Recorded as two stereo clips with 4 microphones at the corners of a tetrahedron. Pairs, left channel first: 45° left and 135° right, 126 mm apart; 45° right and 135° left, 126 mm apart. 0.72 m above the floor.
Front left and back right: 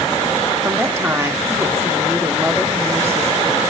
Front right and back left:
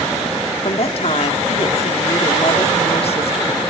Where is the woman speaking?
65° right, 0.9 m.